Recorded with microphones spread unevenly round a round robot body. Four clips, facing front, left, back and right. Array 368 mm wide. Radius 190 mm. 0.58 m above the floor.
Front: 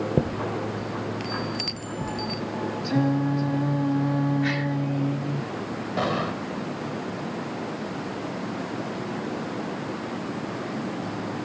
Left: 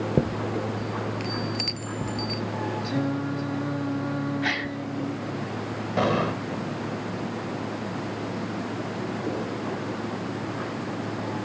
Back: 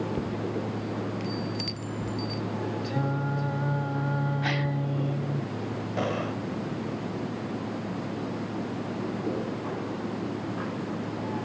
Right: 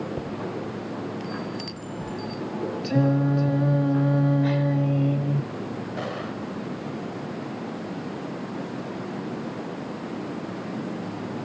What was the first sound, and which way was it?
A chime, 45° left.